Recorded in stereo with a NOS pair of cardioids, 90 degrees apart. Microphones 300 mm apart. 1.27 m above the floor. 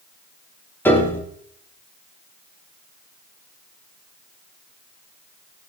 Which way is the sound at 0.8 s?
5° left.